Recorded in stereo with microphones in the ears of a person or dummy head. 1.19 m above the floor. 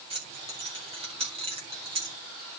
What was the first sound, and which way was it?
Keys jangling, 30° right (ahead or behind).